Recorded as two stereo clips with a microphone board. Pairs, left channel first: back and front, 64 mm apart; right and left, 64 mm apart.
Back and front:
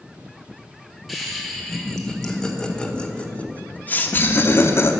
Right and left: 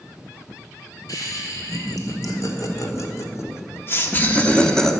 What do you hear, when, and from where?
1.1 s laughter: 90° right, 2.5 m; by 4.9 s 170° right, 1.1 m